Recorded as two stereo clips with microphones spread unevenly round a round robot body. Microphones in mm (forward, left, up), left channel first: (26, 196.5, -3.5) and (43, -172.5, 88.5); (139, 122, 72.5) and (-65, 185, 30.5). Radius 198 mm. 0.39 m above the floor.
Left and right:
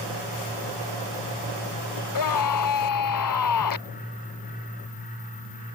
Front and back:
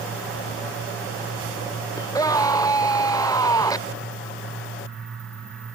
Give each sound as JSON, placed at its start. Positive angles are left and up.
{"t": 2.0, "sound": "a scream", "azimuth_deg": 55}